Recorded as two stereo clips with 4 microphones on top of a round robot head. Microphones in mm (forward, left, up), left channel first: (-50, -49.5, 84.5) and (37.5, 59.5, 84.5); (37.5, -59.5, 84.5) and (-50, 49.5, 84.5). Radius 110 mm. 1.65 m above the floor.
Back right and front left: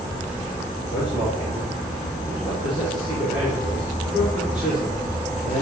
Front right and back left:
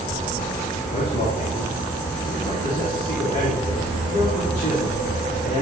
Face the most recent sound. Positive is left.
turn(degrees=-30)